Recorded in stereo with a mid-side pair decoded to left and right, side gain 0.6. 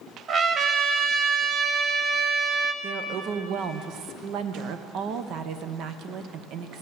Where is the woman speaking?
60° right, 0.9 m.